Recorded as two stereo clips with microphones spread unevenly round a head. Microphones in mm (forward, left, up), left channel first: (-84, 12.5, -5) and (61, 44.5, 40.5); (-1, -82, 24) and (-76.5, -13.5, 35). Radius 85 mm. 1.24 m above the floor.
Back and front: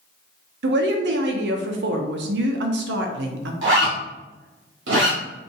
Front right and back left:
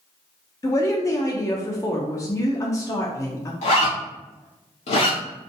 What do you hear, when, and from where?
0.6 s a woman speaking: 20° left, 0.8 m
3.6 s a zipper: 10° right, 1.7 m